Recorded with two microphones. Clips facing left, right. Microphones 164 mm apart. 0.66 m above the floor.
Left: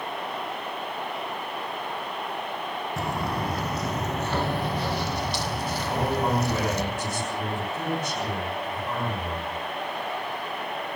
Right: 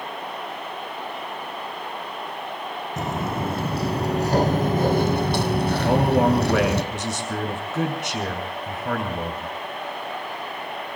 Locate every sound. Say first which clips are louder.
3.0 s footsteps: right 3 dB; 20° right (ahead or behind), 2.5 m; by 6.8 s 70° right (ahead or behind), 1.9 m
5.8 s a man speaking: right 7 dB; 80° right, 6 m